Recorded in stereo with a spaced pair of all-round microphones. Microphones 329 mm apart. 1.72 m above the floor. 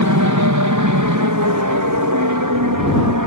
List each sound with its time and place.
0.0 s an aircraft: 60° right (ahead or behind); by 3.3 s 70° right (ahead or behind)